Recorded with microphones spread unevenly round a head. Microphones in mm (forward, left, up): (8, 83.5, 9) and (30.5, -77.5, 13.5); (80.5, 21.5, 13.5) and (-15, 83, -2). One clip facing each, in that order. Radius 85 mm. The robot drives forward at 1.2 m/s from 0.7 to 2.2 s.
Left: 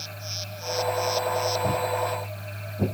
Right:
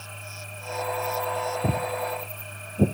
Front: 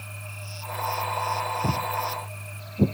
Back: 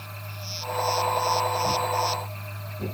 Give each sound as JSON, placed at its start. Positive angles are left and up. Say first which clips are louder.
{"t": 1.6, "sound": "footsteps", "louder": "left 2 dB, back 3 dB", "azimuth_deg": -50, "distance_m": 1.4}